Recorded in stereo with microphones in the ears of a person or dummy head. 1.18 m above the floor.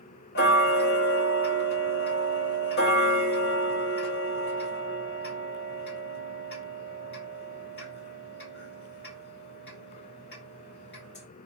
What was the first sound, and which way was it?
Ticking, 50° left (ahead or behind).